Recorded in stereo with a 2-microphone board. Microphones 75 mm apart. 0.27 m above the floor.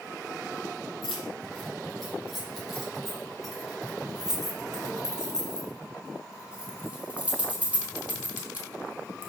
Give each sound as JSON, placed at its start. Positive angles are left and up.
{"t": 1.0, "sound": "keys jangling", "side_deg": 0, "distance_m": 6.5}